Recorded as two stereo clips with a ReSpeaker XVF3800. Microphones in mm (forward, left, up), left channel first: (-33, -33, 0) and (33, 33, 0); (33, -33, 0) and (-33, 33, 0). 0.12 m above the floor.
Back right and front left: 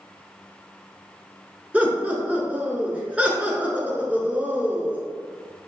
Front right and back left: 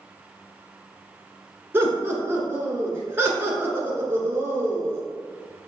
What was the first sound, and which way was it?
Laughter, 105° left.